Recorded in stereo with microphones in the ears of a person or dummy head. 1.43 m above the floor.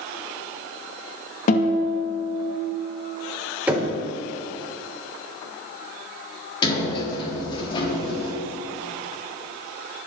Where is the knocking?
10° right (ahead or behind), 3.5 m.